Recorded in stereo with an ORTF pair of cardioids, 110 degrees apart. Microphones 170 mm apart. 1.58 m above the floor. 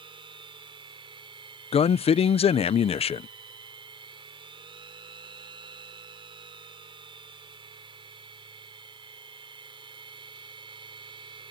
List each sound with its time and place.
0.0 s a machine running: 30° right
1.7 s a man speaking: 35° left